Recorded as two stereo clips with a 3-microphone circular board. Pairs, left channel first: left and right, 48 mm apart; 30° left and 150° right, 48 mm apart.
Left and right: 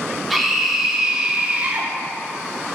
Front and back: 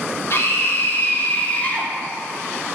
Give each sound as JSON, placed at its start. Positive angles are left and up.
{"t": 0.3, "sound": "a scream", "azimuth_deg": 0, "distance_m": 1.8}